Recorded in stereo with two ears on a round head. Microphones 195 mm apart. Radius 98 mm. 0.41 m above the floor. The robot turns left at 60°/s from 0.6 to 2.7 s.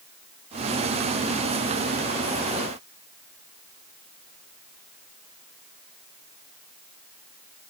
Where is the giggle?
I don't hear a giggle.